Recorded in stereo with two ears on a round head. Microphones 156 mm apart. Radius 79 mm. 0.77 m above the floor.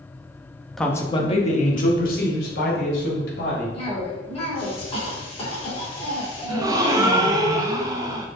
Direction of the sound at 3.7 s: 35° left (ahead or behind).